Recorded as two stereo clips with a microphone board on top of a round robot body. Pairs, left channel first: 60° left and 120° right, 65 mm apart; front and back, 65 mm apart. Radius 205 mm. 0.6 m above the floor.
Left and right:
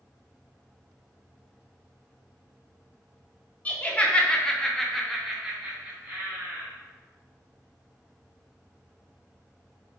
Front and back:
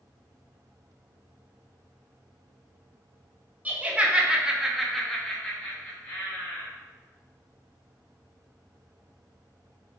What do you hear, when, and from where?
3.6 s laughter: 120° left, 1.3 m; by 6.7 s 55° right, 1.5 m